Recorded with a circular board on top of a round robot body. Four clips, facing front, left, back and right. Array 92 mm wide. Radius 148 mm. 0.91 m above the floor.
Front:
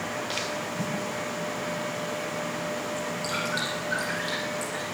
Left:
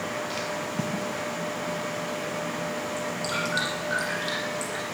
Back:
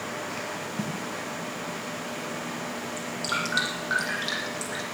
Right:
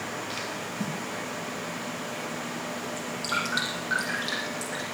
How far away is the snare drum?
About 3.5 m.